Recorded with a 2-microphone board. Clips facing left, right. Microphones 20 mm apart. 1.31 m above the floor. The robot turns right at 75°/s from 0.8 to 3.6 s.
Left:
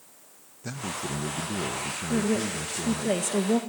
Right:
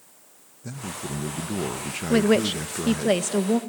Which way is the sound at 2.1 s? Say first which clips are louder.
Right 7 dB; 105° right.